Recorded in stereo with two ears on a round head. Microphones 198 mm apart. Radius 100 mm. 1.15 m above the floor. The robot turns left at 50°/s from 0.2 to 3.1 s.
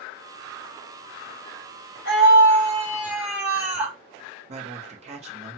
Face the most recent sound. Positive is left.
turn(degrees=-30)  # may be behind; listen again after turning